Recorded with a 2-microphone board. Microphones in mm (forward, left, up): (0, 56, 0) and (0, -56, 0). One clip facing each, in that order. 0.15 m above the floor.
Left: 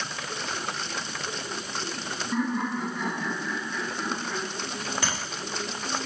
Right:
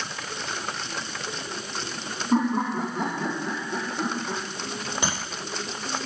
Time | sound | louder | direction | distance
2.3 | laughter | right 5 dB | 55° right (ahead or behind) | 8 m
5.0 | tapping | right 3 dB | 20° right (ahead or behind) | 7.5 m